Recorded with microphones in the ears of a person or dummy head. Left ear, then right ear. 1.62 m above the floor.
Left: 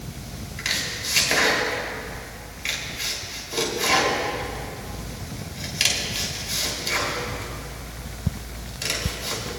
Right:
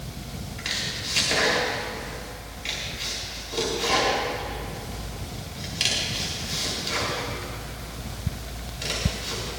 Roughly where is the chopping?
Centre.